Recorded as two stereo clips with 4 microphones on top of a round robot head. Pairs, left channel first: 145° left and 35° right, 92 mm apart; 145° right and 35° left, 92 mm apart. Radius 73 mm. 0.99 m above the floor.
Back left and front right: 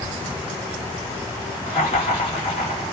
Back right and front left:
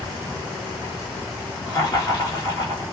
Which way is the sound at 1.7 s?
160° left.